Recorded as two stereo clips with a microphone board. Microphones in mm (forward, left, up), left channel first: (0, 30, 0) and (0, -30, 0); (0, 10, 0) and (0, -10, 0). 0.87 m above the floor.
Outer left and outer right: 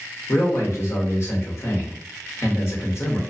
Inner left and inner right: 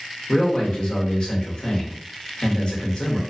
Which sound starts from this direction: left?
A man speaking, at 0.3 s.